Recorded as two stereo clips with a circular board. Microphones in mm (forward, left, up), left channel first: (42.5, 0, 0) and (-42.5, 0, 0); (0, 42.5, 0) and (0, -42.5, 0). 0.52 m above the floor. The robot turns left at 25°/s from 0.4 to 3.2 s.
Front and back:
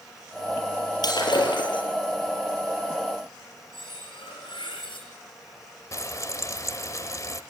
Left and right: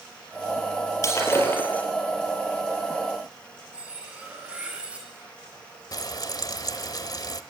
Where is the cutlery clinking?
15° right, 5.5 m.